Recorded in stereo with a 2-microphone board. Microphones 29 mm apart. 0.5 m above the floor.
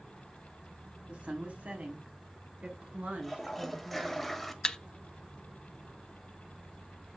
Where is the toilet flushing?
5° left (ahead or behind), 1.1 m.